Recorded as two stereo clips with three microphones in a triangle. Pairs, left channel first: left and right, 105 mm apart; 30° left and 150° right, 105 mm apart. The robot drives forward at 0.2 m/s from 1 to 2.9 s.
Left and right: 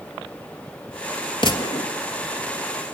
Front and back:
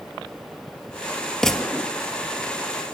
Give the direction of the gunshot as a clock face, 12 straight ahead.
8 o'clock.